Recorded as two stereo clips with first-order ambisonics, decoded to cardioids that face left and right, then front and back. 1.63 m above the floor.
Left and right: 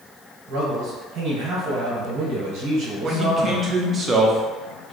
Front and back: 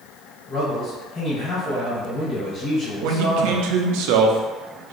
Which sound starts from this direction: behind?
A man speaking, at 3.0 s.